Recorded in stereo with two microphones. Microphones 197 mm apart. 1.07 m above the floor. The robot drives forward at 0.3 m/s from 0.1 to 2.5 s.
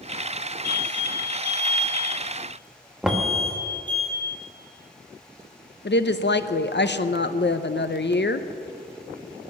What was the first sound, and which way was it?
An alarm, 50° left (ahead or behind).